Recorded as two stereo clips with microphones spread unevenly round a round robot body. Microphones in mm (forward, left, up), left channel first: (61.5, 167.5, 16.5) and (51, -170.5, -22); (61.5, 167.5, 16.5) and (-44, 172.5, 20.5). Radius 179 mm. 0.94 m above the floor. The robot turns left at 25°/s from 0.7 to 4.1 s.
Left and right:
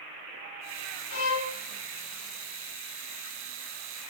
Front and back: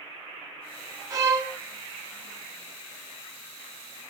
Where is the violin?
125° left, 0.9 m; by 1.5 s 115° left, 0.9 m.